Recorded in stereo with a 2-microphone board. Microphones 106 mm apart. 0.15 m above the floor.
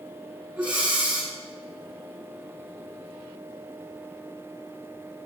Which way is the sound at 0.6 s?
15° right (ahead or behind).